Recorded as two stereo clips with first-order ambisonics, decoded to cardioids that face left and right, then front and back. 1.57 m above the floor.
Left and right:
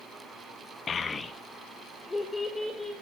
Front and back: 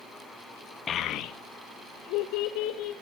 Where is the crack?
No crack in this recording.